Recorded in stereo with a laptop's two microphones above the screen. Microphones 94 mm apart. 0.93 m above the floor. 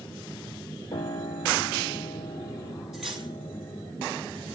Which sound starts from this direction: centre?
Cutlery clinking, at 2.9 s.